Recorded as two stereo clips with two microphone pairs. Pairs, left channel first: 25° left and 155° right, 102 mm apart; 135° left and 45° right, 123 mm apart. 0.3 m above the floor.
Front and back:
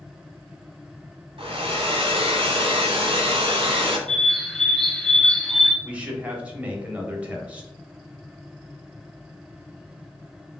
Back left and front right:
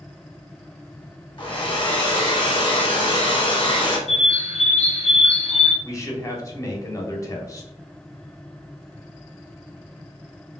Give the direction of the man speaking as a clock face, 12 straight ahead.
7 o'clock.